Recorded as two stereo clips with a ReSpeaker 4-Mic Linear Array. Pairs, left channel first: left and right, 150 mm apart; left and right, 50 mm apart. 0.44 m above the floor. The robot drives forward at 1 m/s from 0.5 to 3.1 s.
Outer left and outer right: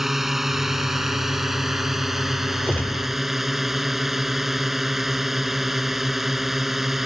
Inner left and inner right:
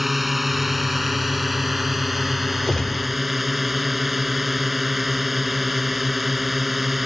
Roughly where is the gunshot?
Centre.